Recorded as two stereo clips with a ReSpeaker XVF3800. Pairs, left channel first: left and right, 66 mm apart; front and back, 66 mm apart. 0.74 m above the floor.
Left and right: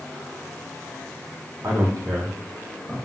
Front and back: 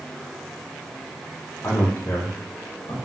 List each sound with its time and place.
1.6 s a man speaking: 50° right, 1.2 m; by 2.9 s 15° right, 1.1 m